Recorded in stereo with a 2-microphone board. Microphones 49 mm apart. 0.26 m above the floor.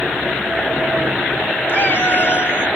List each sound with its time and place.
1.7 s a cat meowing: 60° left (ahead or behind), 0.6 m